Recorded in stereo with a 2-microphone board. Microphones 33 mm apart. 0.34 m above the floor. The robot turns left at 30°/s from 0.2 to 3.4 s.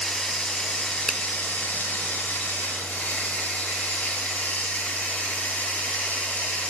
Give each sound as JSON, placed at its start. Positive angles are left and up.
{"t": 0.0, "sound": "running water", "azimuth_deg": 155, "distance_m": 1.7}
{"t": 1.1, "sound": "a finger snap", "side_deg": 10, "distance_m": 0.6}